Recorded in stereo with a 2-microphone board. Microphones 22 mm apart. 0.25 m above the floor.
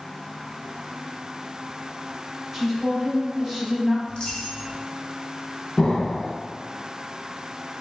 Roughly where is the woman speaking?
Centre.